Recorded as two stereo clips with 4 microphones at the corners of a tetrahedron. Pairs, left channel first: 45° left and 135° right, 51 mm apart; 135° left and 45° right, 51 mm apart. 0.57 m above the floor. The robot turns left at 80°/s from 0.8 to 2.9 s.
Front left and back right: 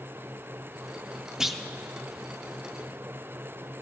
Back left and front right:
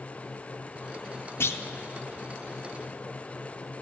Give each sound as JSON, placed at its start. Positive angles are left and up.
{"t": 1.4, "sound": "a clunk", "azimuth_deg": 145, "distance_m": 0.5}